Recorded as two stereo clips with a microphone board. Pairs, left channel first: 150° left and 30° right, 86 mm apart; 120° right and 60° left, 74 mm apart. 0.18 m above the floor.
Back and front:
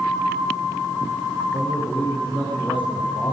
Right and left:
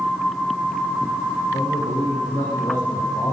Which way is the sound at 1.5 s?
140° right.